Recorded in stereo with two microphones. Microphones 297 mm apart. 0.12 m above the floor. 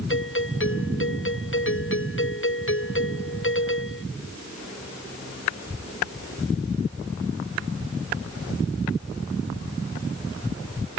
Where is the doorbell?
40° left (ahead or behind).